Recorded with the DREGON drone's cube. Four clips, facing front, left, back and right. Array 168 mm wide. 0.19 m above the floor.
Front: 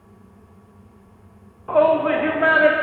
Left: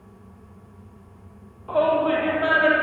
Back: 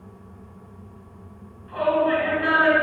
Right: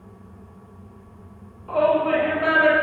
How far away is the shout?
About 8 m.